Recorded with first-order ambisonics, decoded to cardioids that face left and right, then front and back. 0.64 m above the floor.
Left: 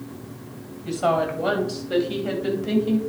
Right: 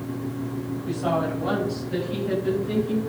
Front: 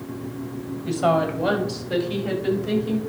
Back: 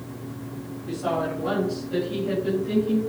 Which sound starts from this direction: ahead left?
A woman speaking, at 0.8 s.